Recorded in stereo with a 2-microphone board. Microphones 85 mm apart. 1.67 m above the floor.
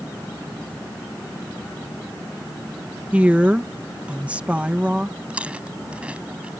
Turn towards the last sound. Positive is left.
turn(degrees=-15)  # may be behind; listen again after turning